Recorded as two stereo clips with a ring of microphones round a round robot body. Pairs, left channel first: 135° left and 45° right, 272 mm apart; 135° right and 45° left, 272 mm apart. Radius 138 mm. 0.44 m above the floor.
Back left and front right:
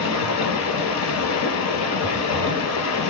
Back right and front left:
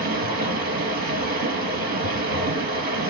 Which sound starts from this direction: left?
Running water, at 0.0 s.